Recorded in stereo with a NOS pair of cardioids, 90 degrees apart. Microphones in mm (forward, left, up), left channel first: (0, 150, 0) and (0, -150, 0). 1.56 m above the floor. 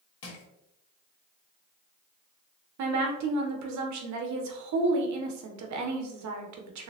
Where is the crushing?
50° left, 1.4 m.